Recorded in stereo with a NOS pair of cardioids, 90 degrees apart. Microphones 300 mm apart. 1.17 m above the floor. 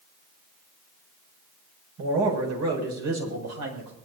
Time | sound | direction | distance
2.0 | a man speaking | 60° right | 7.5 m